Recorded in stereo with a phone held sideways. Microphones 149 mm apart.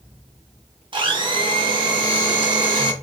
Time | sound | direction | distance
0.9 | a blender | 35° right (ahead or behind) | 0.6 m